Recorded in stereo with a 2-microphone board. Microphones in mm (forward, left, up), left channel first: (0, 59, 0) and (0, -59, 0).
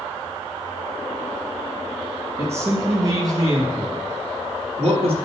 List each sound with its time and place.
2.4 s a man speaking: 20° right (ahead or behind), 3 m; by 5.2 s 50° right (ahead or behind), 2.0 m